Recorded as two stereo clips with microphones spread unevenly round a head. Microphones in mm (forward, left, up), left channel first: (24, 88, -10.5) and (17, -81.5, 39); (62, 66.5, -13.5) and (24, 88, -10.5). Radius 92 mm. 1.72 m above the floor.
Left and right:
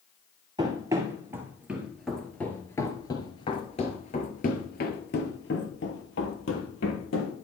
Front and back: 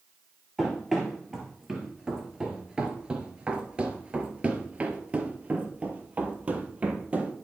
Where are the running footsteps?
125° right, 2 m; by 7.3 s 100° left, 3 m.